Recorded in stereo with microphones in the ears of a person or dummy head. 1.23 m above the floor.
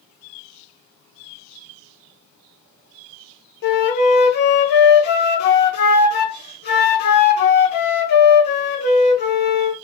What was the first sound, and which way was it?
A flute, 50° left (ahead or behind).